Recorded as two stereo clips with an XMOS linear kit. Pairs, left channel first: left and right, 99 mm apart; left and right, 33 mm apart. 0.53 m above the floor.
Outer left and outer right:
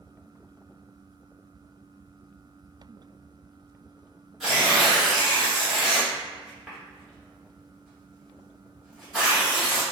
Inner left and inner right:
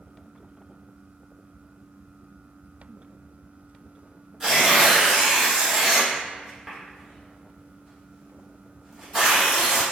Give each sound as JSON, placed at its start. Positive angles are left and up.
{"t": 4.4, "sound": "tearing paper", "side_deg": -5, "distance_m": 1.5}